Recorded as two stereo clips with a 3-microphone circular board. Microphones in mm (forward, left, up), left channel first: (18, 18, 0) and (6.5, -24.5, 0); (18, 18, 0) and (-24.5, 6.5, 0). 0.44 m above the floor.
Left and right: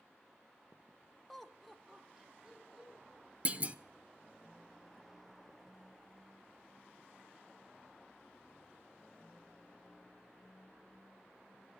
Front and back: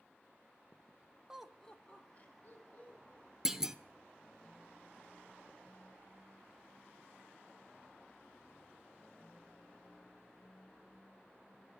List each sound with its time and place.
1.3 s laughter: 145° left, 0.8 m; by 3.3 s 25° right, 3 m
3.5 s a clunk: 95° right, 0.7 m